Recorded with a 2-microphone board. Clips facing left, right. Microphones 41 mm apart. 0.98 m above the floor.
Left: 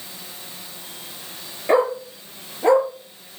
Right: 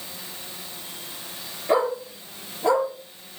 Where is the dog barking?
35° left (ahead or behind), 5.5 m.